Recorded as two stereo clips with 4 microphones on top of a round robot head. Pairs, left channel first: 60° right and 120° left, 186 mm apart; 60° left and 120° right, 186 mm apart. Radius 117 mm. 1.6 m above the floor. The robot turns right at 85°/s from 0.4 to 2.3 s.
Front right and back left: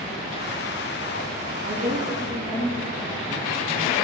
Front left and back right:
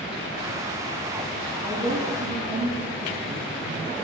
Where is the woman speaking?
160° left, 2.5 m; by 4.0 s 145° right, 2.5 m.